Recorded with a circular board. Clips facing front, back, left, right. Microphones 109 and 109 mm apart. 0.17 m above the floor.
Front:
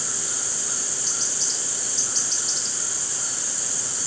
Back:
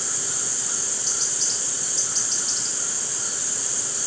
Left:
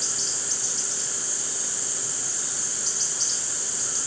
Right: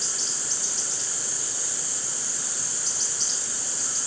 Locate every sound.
Only background noise.